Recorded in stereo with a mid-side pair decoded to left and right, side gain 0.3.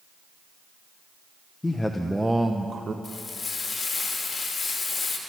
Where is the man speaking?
25° left, 1.0 m; by 2.9 s 50° right, 1.3 m.